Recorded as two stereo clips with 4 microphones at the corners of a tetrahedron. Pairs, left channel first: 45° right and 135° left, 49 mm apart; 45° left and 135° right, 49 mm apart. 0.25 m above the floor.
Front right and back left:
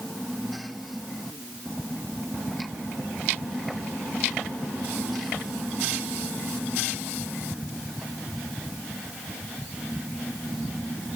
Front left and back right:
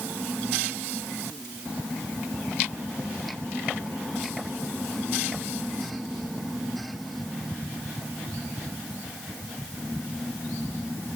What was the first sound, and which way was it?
Only background noise.